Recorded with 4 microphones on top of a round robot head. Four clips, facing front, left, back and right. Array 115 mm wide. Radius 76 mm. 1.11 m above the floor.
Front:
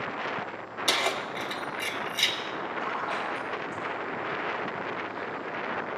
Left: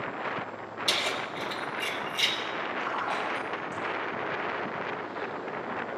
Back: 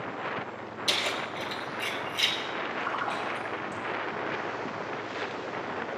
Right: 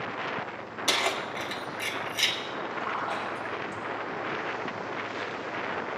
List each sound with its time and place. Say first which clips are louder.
0.9 s keys jangling: right 3 dB, front 3 dB; 45° right, 1.2 m
2.8 s a splash: even, even; 145° left, 4 m